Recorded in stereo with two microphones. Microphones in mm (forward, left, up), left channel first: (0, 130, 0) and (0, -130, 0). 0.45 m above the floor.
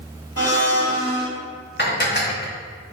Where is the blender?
65° left (ahead or behind), 2.5 m.